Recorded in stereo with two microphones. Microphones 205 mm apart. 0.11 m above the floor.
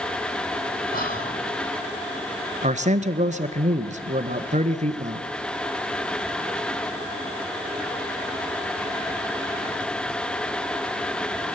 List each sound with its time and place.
0.9 s whispering: 45° left (ahead or behind), 4.5 m
2.6 s a man speaking: 35° right (ahead or behind), 1.2 m